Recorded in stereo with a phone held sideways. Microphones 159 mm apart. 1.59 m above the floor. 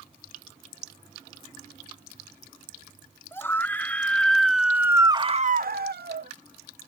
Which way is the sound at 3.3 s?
15° left (ahead or behind).